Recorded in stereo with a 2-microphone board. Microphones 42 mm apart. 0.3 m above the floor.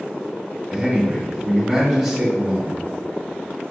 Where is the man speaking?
Centre (ahead or behind), 1.8 m.